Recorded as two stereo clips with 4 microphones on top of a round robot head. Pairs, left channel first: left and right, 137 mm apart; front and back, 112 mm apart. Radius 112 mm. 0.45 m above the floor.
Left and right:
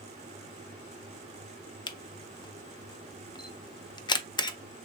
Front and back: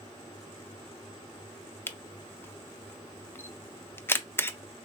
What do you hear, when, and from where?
1.9 s a camera shutter: 60° left, 0.5 m